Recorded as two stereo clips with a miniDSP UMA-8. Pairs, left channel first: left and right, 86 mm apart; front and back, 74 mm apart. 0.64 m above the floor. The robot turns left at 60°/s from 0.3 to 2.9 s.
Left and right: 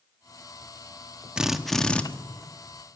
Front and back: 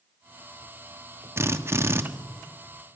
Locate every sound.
1.4 s a drill: 165° right, 1.2 m; by 2.0 s 155° left, 1.2 m